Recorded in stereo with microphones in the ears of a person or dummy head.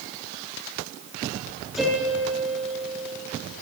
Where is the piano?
5° right (ahead or behind), 6 m.